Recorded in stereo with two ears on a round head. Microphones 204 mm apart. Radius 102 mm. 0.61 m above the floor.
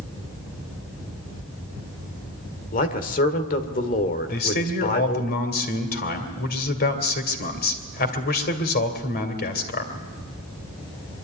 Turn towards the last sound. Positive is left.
turn(degrees=45)  # may be behind; listen again after turning